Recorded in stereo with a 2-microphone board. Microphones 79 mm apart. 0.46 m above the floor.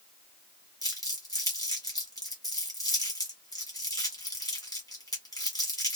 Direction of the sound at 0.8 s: 55° left (ahead or behind).